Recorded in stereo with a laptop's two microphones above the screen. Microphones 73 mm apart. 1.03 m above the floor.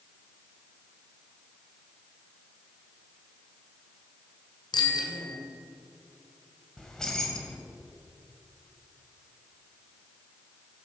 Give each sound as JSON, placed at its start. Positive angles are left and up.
{"t": 4.7, "sound": "a bicycle bell", "side_deg": 75, "distance_m": 3.0}
{"t": 6.8, "sound": "keys jangling", "side_deg": 10, "distance_m": 3.5}